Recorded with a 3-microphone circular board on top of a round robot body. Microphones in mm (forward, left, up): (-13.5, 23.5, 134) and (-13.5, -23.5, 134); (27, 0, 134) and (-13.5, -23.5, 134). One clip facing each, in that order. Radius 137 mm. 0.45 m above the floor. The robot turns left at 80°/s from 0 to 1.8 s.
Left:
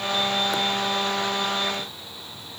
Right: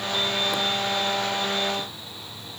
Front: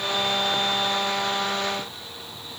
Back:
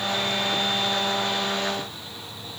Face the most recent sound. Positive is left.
No sound to turn to.